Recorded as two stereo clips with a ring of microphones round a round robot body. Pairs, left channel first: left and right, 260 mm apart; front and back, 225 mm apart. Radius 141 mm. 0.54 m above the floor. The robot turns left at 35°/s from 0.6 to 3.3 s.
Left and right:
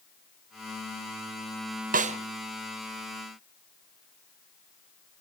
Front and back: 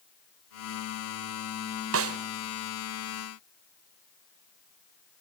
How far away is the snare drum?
About 1.3 m.